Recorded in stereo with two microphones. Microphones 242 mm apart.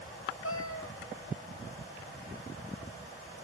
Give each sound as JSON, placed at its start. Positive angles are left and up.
{"t": 0.4, "sound": "a cat meowing", "side_deg": 65, "distance_m": 0.9}